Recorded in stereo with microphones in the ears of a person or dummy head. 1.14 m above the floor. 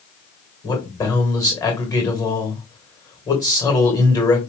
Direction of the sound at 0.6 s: 20° left (ahead or behind).